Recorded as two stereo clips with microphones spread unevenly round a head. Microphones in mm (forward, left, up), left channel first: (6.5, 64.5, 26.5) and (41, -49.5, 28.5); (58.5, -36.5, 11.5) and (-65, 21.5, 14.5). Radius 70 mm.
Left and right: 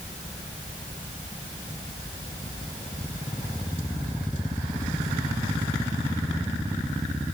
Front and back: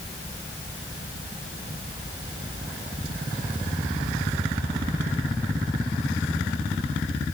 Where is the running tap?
No running tap in this recording.